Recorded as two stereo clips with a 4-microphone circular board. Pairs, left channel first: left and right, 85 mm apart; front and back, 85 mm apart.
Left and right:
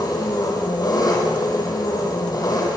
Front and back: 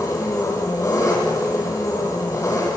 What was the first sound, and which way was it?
An engine running, 50° left.